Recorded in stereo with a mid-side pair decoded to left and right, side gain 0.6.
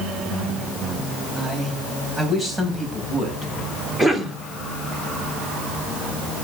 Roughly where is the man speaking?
Ahead.